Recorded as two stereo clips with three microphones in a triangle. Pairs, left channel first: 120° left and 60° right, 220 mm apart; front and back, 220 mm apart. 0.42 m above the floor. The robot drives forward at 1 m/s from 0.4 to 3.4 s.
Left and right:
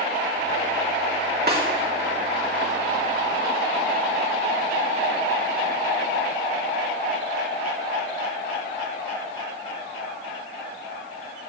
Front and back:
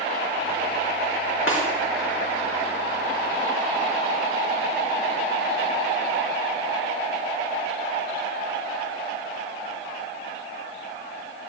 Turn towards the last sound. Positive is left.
turn(degrees=-45)